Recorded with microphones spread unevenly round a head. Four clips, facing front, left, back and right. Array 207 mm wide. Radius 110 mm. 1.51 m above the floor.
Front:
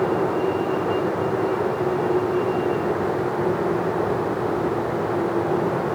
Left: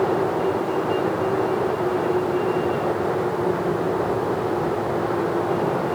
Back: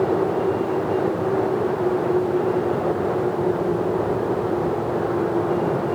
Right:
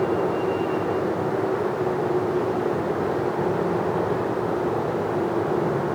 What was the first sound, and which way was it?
Only background noise.